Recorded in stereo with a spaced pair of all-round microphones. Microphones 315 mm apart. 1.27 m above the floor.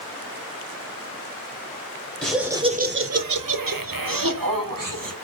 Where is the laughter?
5° left (ahead or behind), 0.7 m; by 5.1 s 65° right (ahead or behind), 1.4 m.